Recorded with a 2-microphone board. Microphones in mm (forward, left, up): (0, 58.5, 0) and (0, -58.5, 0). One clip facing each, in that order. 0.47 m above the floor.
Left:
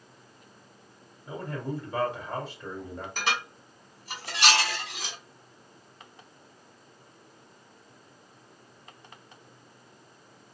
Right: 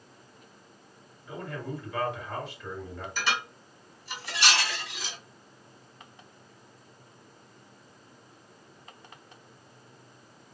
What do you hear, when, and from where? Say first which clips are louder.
1.3 s a man speaking: left 2 dB; 35° left (ahead or behind), 1.9 m
3.2 s dishes clattering: even; 55° left (ahead or behind), 1.4 m